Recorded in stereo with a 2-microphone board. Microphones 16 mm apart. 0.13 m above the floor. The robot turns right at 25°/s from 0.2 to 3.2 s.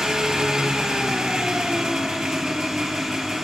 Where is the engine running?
125° right, 0.8 m; by 3.5 s 50° right, 0.8 m.